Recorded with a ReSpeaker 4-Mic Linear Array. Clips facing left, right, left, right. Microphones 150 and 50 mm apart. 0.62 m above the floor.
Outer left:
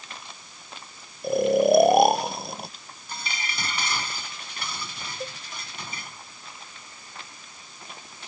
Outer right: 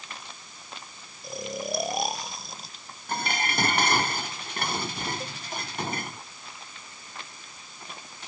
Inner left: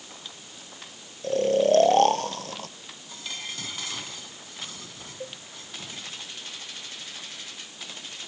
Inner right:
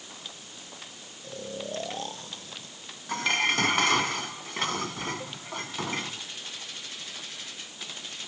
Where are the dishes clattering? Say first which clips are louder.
Outer right 7 dB, inner right 13 dB; 55° right (ahead or behind).